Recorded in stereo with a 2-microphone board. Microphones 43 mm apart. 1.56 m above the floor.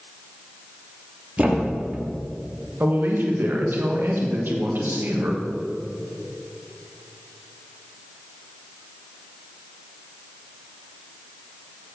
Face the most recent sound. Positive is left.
turn(degrees=-55)  # may be behind; listen again after turning